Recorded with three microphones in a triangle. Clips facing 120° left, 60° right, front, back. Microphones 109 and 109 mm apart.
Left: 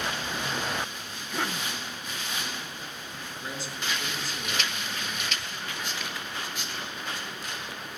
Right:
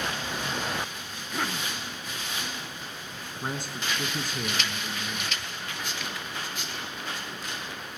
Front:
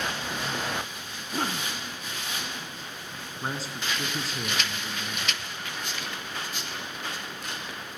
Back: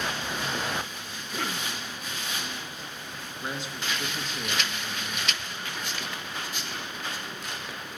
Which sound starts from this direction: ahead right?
A man speaking, at 3.4 s.